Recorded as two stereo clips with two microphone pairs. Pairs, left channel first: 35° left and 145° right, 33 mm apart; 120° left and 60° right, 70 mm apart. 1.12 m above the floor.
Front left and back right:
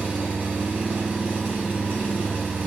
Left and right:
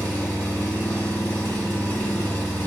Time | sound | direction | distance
0.0 | an engine running | straight behind | 1.3 m